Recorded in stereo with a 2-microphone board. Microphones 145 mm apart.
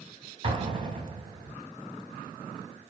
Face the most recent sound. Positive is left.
turn(degrees=-35)  # may be behind; listen again after turning